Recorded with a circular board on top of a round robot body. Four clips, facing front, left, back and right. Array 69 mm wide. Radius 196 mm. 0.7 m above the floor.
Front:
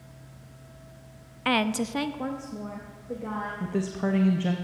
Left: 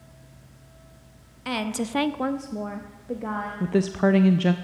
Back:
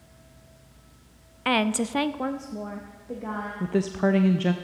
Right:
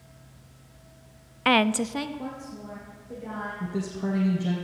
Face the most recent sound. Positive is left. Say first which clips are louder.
# left 11 dB, back 6 dB
turn(degrees=115)